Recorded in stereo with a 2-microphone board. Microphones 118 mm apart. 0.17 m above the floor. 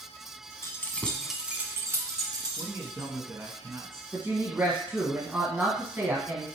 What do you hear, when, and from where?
0.6 s keys jangling: 25° left (ahead or behind), 1.0 m; by 3.1 s 40° right (ahead or behind), 2 m
2.6 s a man speaking: 20° right (ahead or behind), 1.4 m
4.1 s a woman speaking: 15° right (ahead or behind), 1.4 m